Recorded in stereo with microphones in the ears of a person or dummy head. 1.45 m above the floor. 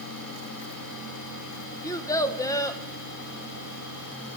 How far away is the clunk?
I don't hear a clunk.